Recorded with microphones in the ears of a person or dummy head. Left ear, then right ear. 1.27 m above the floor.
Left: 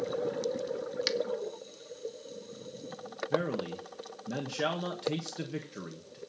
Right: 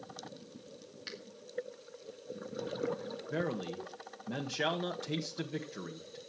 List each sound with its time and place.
1.1 s a finger snap: 45° left (ahead or behind), 1.8 m
3.3 s a man speaking: 5° right (ahead or behind), 1.5 m